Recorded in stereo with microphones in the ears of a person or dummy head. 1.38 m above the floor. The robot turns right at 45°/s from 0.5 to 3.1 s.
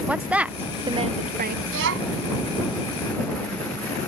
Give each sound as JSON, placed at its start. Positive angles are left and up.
{"t": 0.1, "sound": "a woman speaking", "azimuth_deg": -175}
{"t": 1.7, "sound": "a child speaking", "side_deg": -75}